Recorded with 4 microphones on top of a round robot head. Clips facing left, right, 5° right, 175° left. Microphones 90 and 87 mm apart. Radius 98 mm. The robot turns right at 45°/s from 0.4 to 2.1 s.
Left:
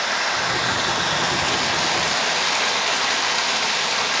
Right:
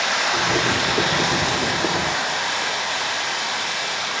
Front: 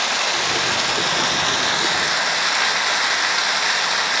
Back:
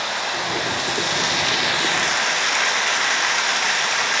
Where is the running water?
Straight ahead, 1.8 m; by 4.2 s 75° left, 1.8 m.